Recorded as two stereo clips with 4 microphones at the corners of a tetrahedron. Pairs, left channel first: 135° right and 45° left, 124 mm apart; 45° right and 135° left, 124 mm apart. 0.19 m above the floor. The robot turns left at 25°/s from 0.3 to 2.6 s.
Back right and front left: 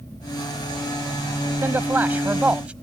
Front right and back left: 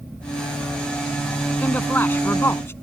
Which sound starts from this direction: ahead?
A man speaking, at 1.6 s.